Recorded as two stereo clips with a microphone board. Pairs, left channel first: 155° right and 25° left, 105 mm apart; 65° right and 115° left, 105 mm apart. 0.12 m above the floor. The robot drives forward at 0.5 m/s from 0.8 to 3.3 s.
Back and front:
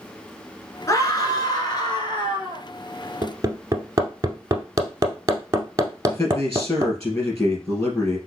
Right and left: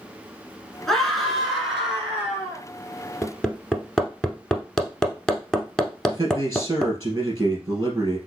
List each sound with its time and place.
0.9 s a scream: 155° right, 1.2 m; by 2.6 s 170° right, 1.8 m
3.2 s hammering: 15° left, 0.8 m
6.1 s a man speaking: 160° left, 2.5 m